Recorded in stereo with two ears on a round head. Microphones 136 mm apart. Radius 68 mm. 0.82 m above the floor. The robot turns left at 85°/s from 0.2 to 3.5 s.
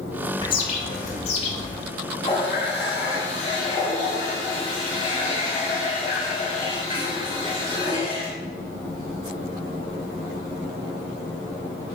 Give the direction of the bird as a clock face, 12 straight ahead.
7 o'clock.